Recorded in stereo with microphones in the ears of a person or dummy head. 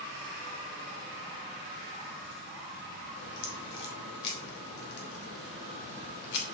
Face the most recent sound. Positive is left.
turn(degrees=55)  # may be behind; listen again after turning